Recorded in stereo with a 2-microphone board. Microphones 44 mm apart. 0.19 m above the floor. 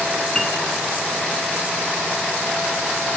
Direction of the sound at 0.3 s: 15° left (ahead or behind).